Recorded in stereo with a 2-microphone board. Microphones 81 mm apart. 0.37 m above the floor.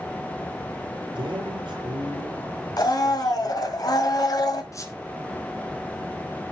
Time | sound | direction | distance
1.1 | a man speaking | 80° right | 4 m
2.8 | a blender | 55° left (ahead or behind) | 1.8 m
4.7 | a squeak | 45° left (ahead or behind) | 2 m